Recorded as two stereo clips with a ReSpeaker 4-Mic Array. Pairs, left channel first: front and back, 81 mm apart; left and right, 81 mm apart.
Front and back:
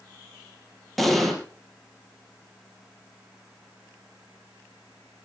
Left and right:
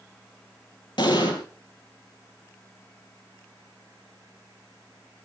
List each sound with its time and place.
1.0 s an explosion: 90° left, 3.5 m